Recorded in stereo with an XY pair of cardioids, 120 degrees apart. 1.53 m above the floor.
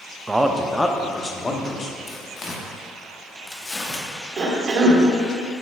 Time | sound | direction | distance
0.3 | a man speaking | 15° right | 0.5 m
2.1 | tearing paper | 25° left | 1.0 m
4.4 | a cough | 40° right | 1.4 m